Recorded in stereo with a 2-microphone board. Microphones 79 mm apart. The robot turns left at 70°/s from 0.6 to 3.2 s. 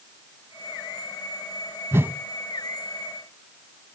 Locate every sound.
1.9 s a whoosh: 35° right (ahead or behind), 0.8 m; by 2.1 s 20° right (ahead or behind), 0.8 m